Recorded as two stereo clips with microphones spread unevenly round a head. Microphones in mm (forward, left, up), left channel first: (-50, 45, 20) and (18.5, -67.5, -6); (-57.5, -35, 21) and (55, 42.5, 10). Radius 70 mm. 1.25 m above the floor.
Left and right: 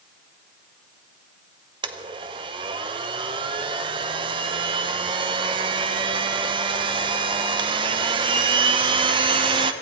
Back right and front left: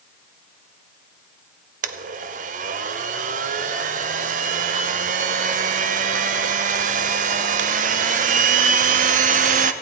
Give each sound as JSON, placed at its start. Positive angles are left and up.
{"t": 1.8, "sound": "a blender", "azimuth_deg": 0, "distance_m": 0.6}